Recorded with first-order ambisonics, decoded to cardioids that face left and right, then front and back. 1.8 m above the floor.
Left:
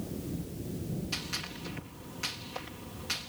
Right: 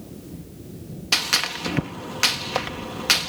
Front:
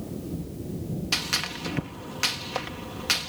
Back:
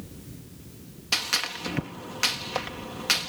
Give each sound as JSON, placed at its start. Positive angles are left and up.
{"t": 1.1, "sound": "a gunshot", "azimuth_deg": -95}